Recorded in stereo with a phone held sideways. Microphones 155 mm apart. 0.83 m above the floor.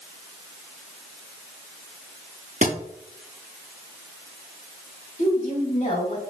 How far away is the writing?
No writing in this recording.